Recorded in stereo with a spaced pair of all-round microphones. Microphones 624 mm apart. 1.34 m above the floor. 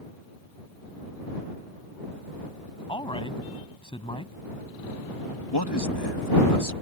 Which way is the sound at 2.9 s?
10° left (ahead or behind).